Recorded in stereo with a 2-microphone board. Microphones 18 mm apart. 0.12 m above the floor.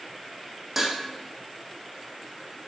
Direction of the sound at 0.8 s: 15° right (ahead or behind).